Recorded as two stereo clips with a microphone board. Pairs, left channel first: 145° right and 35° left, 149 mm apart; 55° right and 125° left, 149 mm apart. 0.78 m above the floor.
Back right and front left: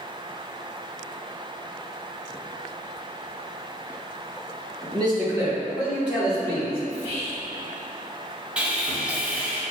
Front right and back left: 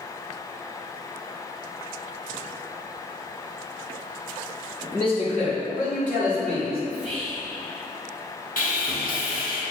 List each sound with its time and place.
4.8 s a man speaking: 5° right, 1.2 m; by 6.8 s 55° right, 2.5 m
6.9 s whispering: 140° right, 1.0 m
8.6 s sawing: 45° right, 0.7 m